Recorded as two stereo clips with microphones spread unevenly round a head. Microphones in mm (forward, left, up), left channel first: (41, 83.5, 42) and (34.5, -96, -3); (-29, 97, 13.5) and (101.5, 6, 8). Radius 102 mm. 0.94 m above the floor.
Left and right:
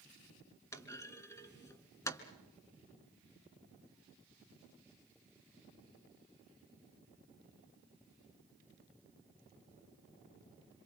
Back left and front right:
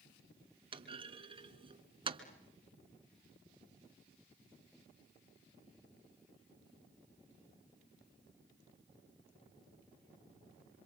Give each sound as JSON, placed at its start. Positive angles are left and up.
{"t": 0.7, "sound": "a clunk", "azimuth_deg": 20, "distance_m": 2.0}